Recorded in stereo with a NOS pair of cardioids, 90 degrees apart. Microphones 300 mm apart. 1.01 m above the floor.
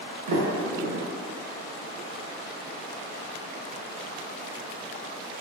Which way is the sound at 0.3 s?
65° right.